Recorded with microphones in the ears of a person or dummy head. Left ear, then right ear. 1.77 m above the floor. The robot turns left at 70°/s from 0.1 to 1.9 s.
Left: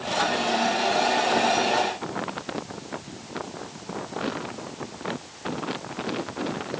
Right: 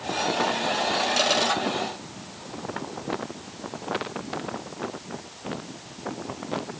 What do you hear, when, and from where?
Only background noise.